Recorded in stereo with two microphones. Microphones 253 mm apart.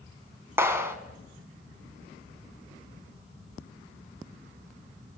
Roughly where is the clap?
Centre.